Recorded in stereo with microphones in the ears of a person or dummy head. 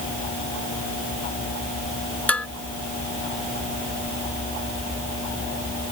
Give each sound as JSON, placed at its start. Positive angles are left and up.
{"t": 2.3, "sound": "dishes clattering", "side_deg": 5}